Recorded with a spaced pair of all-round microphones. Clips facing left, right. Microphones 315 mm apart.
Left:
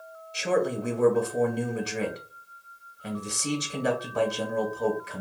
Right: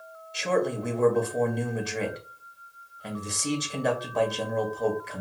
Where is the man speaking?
10° left (ahead or behind), 1.2 m.